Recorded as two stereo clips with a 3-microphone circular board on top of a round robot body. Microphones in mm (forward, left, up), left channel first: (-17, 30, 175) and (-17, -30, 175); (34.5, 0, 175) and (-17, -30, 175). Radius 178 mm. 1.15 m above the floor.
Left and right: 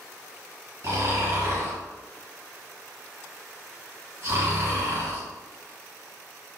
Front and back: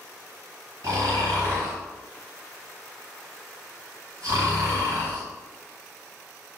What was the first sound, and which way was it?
Snoring, 125° right.